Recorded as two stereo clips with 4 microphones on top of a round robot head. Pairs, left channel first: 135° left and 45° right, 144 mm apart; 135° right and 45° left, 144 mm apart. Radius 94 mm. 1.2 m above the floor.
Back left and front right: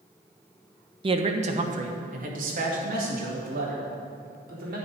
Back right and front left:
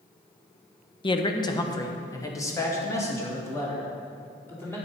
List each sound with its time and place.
1.0 s a man speaking: 90° right, 0.9 m; by 4.8 s 65° right, 4.5 m